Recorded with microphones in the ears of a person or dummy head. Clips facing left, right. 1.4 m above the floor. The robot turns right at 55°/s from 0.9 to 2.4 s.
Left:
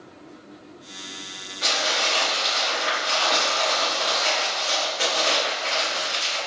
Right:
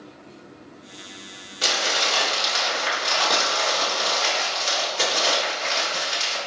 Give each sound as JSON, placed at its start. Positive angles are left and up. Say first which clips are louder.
{"t": 1.6, "sound": "crumpling", "louder": "even", "azimuth_deg": -125, "distance_m": 1.7}